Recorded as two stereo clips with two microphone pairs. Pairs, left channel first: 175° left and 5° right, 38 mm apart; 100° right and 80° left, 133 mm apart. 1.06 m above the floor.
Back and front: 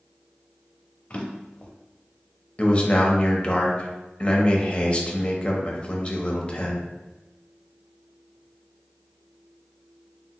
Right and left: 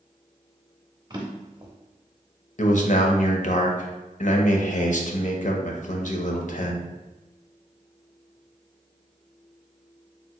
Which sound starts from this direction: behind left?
A drawer, at 1.1 s.